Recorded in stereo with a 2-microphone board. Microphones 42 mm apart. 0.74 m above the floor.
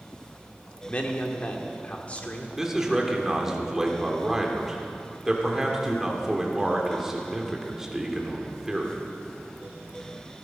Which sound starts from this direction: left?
A man speaking, at 0.9 s.